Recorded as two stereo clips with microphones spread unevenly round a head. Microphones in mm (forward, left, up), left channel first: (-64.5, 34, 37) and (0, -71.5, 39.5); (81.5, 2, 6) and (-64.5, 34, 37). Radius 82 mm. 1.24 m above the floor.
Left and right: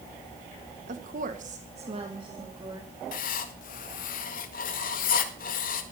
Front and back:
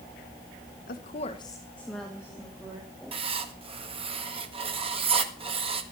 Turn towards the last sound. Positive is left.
turn(degrees=115)